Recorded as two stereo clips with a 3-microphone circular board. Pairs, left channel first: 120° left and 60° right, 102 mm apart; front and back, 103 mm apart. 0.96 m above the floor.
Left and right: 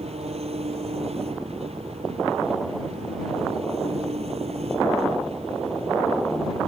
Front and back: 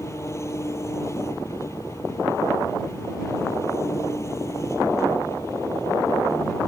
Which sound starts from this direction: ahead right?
An engine running, at 0.0 s.